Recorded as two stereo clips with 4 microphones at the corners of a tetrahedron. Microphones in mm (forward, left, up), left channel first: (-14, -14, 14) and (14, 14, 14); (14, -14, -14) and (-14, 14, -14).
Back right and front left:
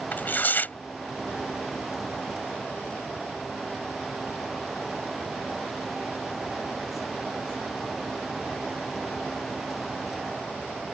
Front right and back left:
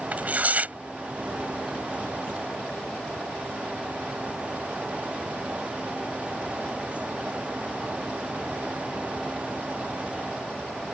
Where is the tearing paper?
175° right.